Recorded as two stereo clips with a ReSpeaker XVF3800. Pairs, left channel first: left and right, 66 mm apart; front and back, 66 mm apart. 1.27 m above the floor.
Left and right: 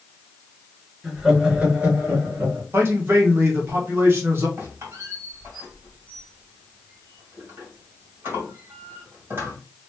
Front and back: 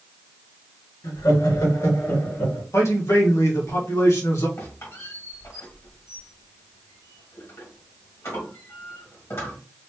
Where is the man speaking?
40° right, 1.5 m.